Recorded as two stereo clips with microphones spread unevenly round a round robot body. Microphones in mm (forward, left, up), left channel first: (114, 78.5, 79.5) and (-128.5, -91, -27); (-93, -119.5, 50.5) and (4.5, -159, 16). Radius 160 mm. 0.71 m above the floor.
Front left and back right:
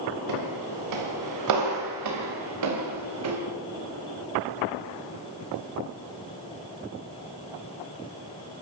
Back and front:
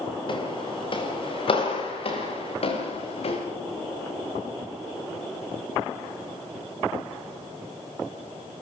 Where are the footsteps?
165° right, 6.5 m; by 3.4 s 170° left, 6.5 m.